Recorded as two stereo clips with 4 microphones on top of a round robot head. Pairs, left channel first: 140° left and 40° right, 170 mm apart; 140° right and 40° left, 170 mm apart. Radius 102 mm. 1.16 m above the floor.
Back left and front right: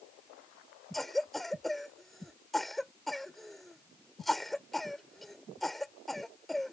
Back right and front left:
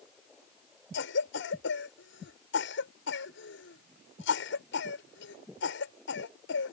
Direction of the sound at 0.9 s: 130° right.